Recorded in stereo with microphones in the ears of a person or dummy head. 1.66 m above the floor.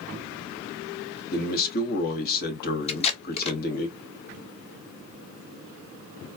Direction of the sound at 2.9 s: 30° left (ahead or behind).